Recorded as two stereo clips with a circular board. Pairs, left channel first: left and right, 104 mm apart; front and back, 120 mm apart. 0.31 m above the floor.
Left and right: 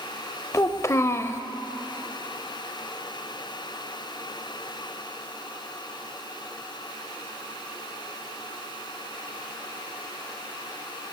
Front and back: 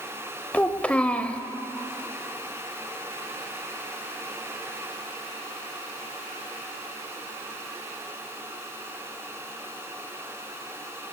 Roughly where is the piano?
I don't hear a piano.